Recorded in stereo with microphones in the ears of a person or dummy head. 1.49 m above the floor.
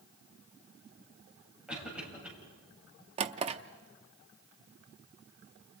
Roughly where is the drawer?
Right.